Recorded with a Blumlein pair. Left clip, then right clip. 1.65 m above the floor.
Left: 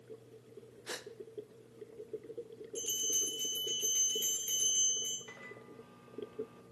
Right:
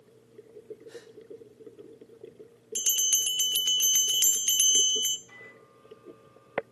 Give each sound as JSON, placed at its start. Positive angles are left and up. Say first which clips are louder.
{"t": 0.9, "sound": "a gasp", "louder": "left 2 dB", "azimuth_deg": 45, "distance_m": 0.6}
{"t": 2.8, "sound": "a bell", "louder": "right 9 dB", "azimuth_deg": -40, "distance_m": 0.5}
{"t": 5.3, "sound": "a microwave", "louder": "right 1 dB", "azimuth_deg": 50, "distance_m": 2.5}